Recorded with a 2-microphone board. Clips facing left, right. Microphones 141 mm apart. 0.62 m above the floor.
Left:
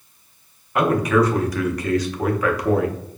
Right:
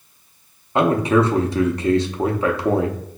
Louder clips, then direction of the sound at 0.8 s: Right 1 dB; 25° right (ahead or behind).